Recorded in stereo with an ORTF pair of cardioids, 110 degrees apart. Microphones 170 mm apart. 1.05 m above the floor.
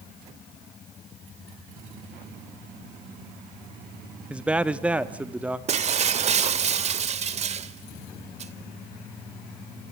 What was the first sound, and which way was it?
A man speaking, 5° right.